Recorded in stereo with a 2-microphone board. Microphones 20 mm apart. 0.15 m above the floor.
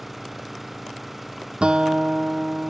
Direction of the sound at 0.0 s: 10° right (ahead or behind).